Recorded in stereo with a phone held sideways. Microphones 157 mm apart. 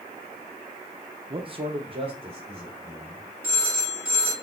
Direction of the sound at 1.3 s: 35° right (ahead or behind).